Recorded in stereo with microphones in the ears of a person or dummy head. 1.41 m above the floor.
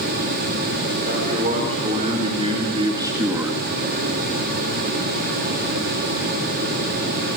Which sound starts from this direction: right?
A man speaking, at 1.1 s.